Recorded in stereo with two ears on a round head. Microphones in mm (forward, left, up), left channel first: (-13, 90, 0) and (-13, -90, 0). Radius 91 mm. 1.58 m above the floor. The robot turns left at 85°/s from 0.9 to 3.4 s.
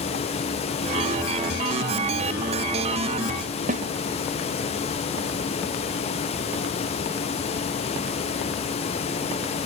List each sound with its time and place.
3.7 s a snare drum: 35° right (ahead or behind), 1.2 m